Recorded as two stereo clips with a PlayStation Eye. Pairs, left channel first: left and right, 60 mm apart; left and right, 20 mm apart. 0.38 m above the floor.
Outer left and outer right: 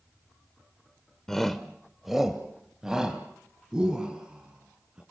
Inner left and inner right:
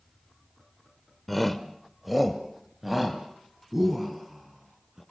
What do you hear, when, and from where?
1.3 s a shout: 10° left (ahead or behind), 1.0 m; by 5.0 s 15° right (ahead or behind), 4 m